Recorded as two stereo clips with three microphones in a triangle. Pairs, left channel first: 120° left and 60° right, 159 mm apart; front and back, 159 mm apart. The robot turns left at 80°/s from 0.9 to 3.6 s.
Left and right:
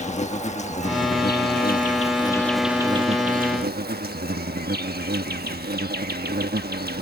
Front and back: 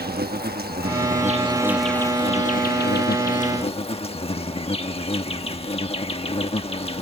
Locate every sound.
0.0 s an insect: 165° left; by 7.0 s 50° right